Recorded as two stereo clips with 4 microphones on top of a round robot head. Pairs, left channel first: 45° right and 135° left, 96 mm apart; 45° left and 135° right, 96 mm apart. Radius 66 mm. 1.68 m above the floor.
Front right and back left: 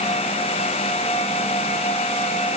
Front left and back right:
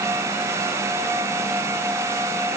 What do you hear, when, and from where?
Only background noise.